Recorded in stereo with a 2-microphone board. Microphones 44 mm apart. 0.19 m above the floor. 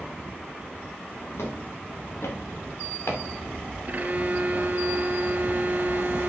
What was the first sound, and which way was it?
Footsteps, 80° left.